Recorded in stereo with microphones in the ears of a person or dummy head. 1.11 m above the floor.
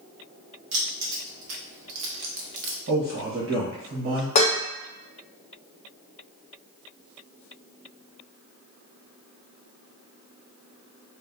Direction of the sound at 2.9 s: 60° right (ahead or behind).